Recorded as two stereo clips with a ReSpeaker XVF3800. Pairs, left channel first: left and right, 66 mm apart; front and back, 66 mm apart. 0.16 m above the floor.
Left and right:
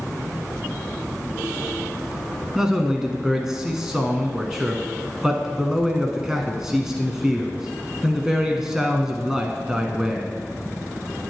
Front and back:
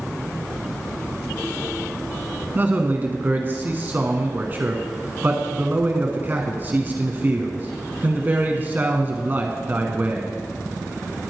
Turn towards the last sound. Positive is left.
turn(degrees=-165)